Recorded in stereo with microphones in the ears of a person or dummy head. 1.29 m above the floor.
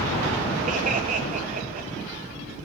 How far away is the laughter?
About 0.6 m.